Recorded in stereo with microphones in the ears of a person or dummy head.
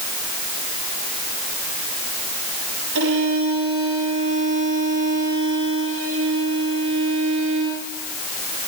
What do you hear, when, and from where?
3.0 s a violin: 80° right, 8.5 m